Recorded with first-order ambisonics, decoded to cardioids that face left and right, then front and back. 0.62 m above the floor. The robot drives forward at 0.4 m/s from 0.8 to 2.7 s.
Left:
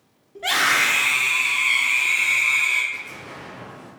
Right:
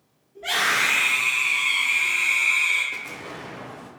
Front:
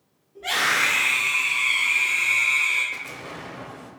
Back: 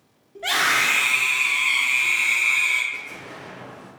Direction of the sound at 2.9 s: 45° right.